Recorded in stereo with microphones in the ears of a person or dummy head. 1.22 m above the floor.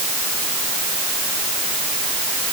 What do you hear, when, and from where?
Only background noise.